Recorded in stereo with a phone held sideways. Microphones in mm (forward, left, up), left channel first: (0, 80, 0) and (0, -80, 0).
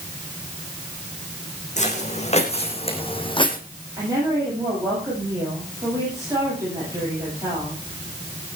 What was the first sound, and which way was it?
Footsteps, 50° left (ahead or behind).